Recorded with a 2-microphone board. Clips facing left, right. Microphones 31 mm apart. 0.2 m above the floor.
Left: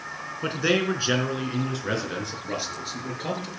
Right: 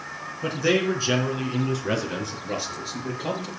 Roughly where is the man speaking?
Left.